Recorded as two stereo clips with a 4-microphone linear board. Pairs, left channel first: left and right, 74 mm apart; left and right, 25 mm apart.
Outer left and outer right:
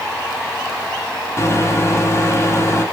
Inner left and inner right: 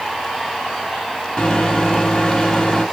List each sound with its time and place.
1.4 s a microwave: 40° left (ahead or behind), 1.1 m